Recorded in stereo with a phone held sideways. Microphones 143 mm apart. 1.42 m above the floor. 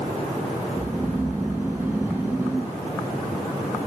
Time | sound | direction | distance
0.7 | snoring | 15° right (ahead or behind) | 0.8 m